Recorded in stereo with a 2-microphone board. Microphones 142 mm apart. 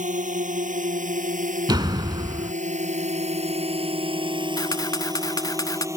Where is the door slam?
30° right (ahead or behind).